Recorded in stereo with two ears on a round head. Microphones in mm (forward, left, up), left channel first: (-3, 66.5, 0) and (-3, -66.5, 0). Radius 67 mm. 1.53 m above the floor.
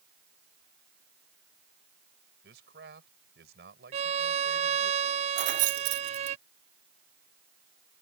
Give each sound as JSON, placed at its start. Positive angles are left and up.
{"t": 2.4, "sound": "a man speaking", "side_deg": -75}
{"t": 3.9, "sound": "a violin", "side_deg": -45}
{"t": 5.4, "sound": "keys jangling", "side_deg": -55}